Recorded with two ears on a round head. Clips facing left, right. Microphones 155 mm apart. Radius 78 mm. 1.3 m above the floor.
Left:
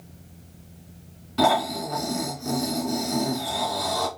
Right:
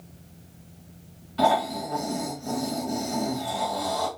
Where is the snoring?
60° left (ahead or behind), 2 m.